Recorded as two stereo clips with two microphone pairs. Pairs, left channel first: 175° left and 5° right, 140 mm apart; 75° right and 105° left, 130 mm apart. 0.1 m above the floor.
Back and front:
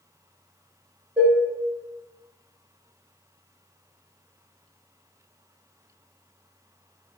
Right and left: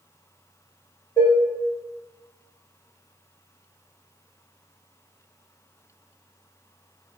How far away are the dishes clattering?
About 0.7 m.